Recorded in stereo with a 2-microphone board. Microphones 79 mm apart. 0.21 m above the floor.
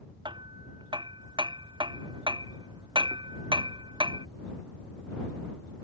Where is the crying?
I don't hear crying.